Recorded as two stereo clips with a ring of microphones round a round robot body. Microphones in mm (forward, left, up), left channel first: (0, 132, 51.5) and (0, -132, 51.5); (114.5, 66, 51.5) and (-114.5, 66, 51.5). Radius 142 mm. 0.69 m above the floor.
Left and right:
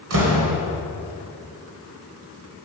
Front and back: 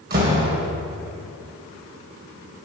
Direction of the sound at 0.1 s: 125° right.